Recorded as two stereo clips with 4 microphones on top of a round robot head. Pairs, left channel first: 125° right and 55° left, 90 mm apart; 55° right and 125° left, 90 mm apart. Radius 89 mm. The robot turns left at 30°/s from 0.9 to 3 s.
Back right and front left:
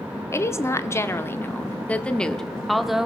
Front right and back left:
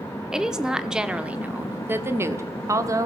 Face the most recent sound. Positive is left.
turn(degrees=140)